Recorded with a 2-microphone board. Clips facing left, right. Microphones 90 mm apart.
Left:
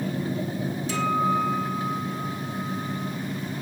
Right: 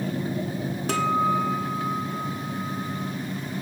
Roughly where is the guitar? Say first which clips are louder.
Right 1 dB; right.